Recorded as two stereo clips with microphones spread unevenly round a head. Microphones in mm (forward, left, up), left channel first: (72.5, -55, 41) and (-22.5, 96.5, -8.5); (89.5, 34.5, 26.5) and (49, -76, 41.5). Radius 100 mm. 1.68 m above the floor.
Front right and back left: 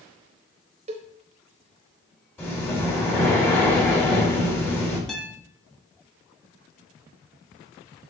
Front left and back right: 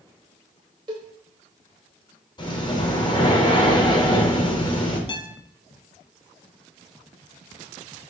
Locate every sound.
0.9 s a cowbell: 175° right, 0.8 m
2.4 s breathing: 20° left, 4 m
5.1 s a guitar: 20° left, 1.7 m